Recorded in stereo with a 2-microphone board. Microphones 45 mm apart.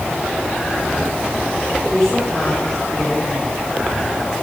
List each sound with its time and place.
1.9 s a woman speaking: 10° left (ahead or behind), 5.5 m